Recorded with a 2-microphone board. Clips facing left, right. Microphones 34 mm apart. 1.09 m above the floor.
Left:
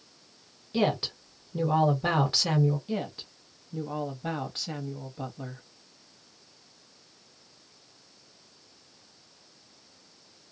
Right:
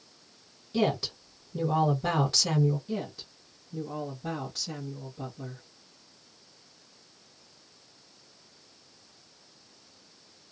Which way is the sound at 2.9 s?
40° left (ahead or behind).